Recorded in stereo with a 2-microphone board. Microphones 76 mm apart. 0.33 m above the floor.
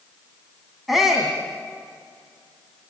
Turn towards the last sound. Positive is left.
turn(degrees=-5)  # may be behind; listen again after turning